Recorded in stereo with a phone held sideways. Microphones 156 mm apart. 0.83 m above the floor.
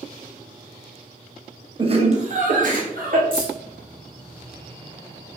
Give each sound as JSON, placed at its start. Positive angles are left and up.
{"t": 1.8, "sound": "laughter", "side_deg": -35, "distance_m": 0.5}
{"t": 3.3, "sound": "keys jangling", "side_deg": -30, "distance_m": 1.3}